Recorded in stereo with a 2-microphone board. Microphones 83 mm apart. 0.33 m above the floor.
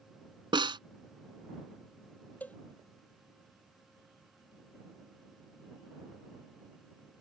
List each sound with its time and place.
0.5 s a snare drum: 75° right (ahead or behind)
2.4 s a cowbell: 20° left (ahead or behind)